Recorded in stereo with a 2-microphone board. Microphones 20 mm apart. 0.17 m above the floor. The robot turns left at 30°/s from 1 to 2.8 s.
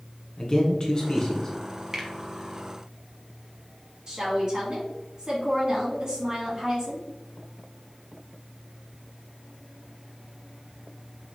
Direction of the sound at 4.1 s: 35° right (ahead or behind).